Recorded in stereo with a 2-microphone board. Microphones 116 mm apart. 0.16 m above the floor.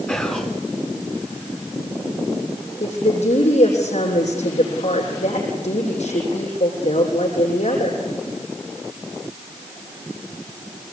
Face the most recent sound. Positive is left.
turn(degrees=75)  # may be behind; listen again after turning